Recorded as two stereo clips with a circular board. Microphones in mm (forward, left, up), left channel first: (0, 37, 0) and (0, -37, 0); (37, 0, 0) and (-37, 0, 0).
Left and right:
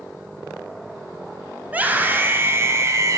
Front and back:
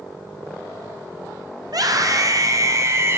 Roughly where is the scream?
Behind.